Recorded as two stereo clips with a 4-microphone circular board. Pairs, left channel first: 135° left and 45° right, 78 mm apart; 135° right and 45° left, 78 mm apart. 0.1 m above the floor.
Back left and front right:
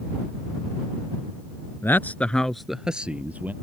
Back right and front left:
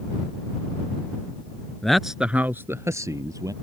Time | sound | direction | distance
1.8 | a man speaking | 150° left | ?